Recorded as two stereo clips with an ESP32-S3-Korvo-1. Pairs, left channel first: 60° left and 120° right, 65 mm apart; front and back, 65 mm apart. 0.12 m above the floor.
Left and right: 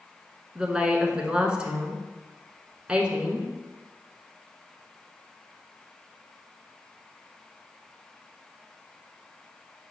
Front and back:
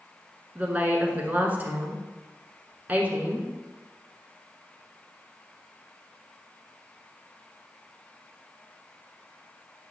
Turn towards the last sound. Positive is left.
turn(degrees=-175)